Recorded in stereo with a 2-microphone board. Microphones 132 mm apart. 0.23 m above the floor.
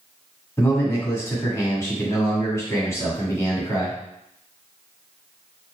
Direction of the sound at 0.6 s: 25° left (ahead or behind).